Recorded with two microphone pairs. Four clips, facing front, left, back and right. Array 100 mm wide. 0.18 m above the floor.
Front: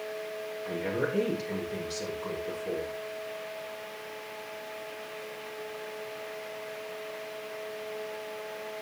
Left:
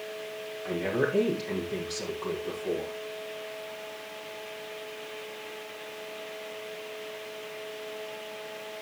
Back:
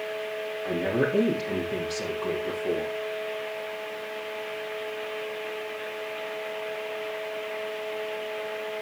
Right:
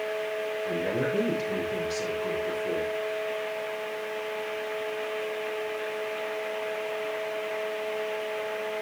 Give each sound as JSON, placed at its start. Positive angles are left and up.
{"t": 0.7, "sound": "a woman speaking", "azimuth_deg": 165, "distance_m": 6.5}